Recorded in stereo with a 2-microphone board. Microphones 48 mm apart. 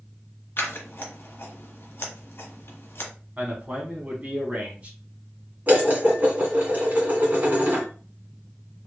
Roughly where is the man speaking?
Right.